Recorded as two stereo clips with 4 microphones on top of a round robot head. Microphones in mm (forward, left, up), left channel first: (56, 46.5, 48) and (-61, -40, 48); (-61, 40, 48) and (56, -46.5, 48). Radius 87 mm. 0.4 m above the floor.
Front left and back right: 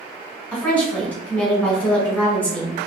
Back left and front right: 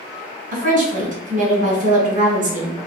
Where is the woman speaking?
45° right, 1.8 m.